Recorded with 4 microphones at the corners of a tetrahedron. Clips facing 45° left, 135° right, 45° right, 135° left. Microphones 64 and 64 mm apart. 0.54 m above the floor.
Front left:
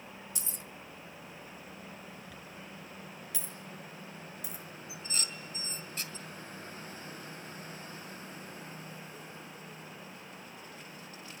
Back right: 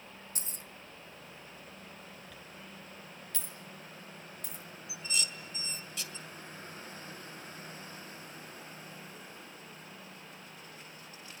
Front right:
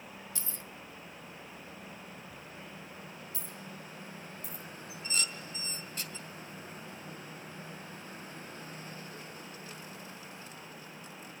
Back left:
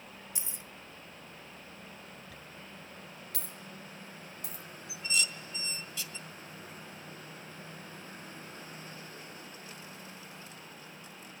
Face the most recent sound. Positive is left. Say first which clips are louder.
# back right 4 dB, back left 4 dB
turn(degrees=-5)